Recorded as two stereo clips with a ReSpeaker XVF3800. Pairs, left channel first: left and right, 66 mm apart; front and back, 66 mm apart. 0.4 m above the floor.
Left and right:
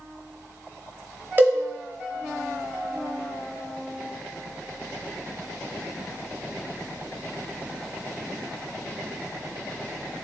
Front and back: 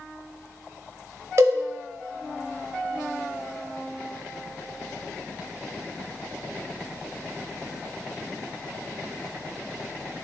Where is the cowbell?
140° right, 0.8 m.